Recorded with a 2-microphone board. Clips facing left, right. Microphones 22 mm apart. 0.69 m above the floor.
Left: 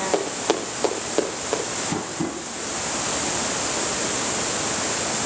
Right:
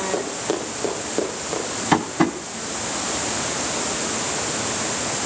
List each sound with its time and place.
0.1 s running footsteps: 30° left (ahead or behind), 8 m; by 1.6 s 20° left (ahead or behind), 9.5 m
1.9 s tapping: 60° right (ahead or behind), 3.5 m